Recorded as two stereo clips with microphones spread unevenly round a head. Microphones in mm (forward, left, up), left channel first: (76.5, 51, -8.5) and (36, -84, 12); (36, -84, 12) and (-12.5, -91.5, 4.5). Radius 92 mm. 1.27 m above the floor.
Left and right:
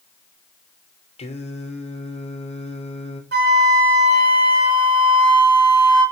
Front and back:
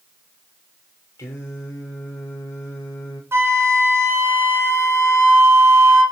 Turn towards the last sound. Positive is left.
turn(degrees=-140)